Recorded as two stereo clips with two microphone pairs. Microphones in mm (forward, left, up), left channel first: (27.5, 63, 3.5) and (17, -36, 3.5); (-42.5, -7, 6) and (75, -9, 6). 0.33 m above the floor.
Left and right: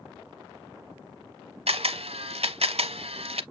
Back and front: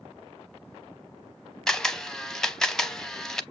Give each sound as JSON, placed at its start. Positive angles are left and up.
{"t": 1.7, "sound": "a camera shutter", "azimuth_deg": -95, "distance_m": 0.5}